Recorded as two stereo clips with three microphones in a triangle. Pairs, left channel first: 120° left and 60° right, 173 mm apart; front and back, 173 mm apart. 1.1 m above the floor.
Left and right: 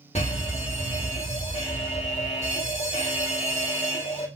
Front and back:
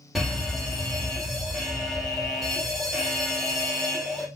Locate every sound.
0.1 s a fire alarm: 90° left, 1.7 m